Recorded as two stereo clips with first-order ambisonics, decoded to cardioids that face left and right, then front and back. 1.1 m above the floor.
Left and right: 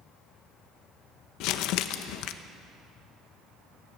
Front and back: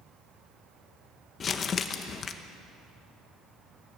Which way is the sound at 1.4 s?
65° left.